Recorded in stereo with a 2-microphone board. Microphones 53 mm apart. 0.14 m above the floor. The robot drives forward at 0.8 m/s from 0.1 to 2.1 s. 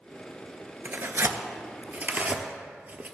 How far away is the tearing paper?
About 0.6 m.